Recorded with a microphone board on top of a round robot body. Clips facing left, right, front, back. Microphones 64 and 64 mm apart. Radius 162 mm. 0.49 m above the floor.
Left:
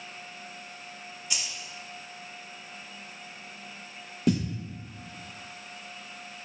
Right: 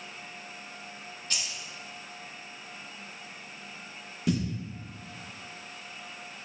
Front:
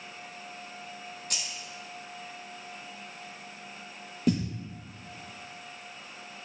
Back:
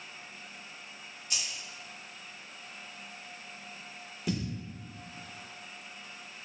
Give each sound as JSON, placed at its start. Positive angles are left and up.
{"t": 1.3, "sound": "keys jangling", "azimuth_deg": 15, "distance_m": 1.1}
{"t": 4.3, "sound": "a thud", "azimuth_deg": 45, "distance_m": 0.6}